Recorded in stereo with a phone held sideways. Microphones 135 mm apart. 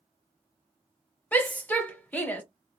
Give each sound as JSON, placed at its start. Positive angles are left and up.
{"t": 1.3, "sound": "a shout", "side_deg": 10, "distance_m": 1.0}